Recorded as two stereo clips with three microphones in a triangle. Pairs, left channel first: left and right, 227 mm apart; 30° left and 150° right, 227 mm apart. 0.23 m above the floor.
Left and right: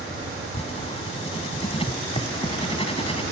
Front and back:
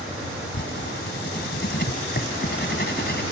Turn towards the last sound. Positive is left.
turn(degrees=35)